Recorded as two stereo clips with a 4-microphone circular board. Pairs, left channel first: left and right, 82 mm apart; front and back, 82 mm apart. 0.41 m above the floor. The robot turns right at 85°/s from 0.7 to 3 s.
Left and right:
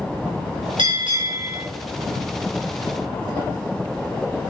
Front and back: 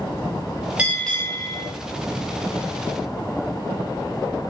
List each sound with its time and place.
0.8 s a bell: 105° right, 2 m; by 1.6 s 35° right, 2 m